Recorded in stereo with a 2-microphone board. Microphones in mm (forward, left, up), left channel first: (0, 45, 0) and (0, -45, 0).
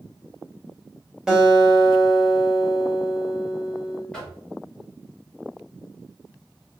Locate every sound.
1.3 s a guitar: 5° right (ahead or behind), 1.8 m
4.1 s knocking: 10° left (ahead or behind), 1.7 m